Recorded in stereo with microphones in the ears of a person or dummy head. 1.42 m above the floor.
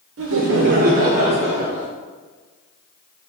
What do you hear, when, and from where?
0.2 s laughter: 70° right (ahead or behind), 0.7 m; by 1.9 s 15° left (ahead or behind), 0.9 m